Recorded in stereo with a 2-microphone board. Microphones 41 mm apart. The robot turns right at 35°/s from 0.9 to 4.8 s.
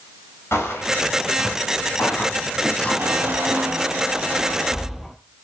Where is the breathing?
I don't hear breathing.